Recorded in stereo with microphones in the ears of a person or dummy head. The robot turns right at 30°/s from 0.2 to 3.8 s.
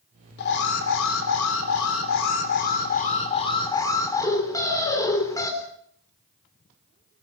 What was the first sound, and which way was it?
An alarm, 60° left.